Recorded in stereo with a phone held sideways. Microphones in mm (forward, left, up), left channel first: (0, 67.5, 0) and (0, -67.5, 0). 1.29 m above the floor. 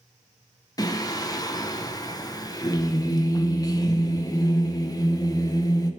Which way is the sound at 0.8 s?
30° left (ahead or behind).